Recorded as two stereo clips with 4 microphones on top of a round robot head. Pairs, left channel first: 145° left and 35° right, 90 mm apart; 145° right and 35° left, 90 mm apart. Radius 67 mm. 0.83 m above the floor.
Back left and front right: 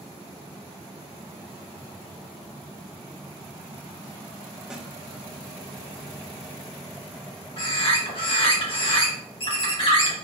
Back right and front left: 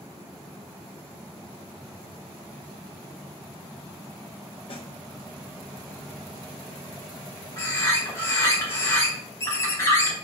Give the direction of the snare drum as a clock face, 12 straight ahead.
4 o'clock.